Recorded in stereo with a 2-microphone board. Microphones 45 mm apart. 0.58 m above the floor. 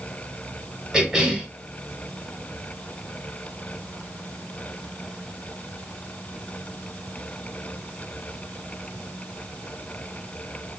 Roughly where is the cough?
Centre.